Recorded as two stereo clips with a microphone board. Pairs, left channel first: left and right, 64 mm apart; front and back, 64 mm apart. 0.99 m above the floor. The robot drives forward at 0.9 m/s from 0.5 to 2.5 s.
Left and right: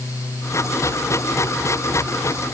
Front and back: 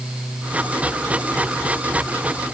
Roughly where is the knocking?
No knocking in this recording.